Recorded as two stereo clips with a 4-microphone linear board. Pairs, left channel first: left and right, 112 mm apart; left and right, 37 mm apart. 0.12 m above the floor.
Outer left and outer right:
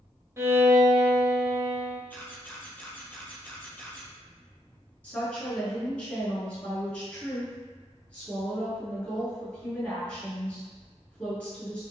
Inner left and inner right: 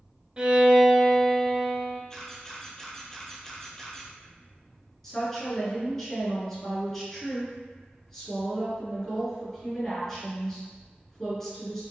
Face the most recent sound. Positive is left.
turn(degrees=15)  # may be behind; listen again after turning